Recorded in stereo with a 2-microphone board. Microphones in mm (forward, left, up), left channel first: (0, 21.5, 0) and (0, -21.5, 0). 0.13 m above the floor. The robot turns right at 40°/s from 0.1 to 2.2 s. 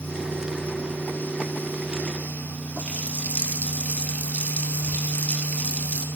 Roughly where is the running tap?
Left.